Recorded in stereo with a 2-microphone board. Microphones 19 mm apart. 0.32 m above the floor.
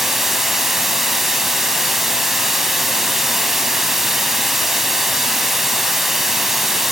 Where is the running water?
15° right (ahead or behind), 1.0 m.